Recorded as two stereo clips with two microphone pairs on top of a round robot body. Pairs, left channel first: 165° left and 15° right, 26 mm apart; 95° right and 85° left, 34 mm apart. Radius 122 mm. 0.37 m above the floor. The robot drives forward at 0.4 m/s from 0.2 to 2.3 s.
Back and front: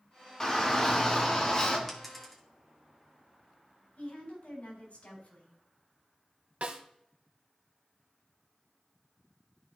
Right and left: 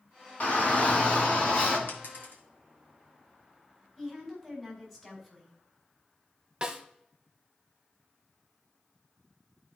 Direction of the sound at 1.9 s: 105° right.